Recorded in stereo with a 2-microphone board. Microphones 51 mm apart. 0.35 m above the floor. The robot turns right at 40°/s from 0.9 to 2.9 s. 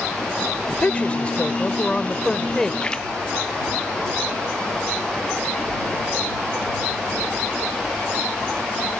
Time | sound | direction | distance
0.7 | a woman speaking | 25° left (ahead or behind) | ?
2.8 | a splash | 20° left (ahead or behind) | ?